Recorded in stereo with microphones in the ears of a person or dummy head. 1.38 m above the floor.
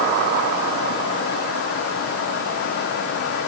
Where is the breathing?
No breathing in this recording.